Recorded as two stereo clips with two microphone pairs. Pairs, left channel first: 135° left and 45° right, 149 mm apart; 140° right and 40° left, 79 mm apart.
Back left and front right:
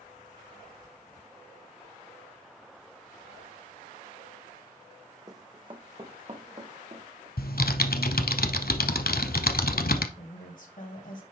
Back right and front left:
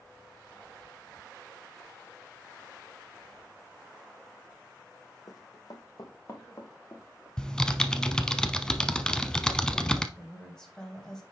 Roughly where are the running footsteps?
Right.